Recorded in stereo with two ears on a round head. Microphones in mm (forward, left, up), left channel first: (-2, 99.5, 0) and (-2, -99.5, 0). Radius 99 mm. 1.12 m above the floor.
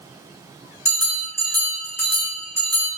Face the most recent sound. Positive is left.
turn(degrees=10)  # may be behind; listen again after turning